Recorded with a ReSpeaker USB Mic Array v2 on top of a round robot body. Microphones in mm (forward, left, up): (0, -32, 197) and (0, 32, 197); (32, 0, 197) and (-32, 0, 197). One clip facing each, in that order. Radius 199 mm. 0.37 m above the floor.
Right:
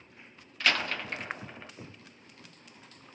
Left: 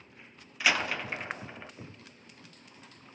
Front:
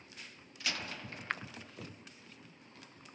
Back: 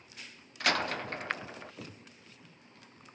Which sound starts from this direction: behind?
A door slam, at 0.6 s.